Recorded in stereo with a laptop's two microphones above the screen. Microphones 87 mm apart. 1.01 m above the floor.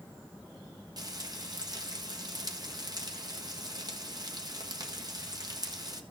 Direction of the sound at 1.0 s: 50° right (ahead or behind).